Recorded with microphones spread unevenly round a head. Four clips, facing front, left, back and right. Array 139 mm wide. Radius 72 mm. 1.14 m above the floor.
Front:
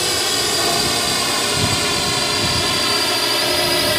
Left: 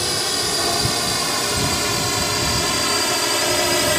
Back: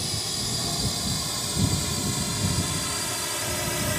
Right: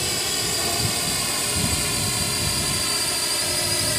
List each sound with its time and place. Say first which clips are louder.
0.0 s a drone: left 5 dB, front 13 dB; 15° left; by 4.0 s 40° left